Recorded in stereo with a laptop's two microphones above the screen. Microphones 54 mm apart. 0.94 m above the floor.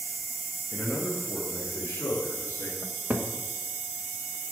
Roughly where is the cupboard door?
Right.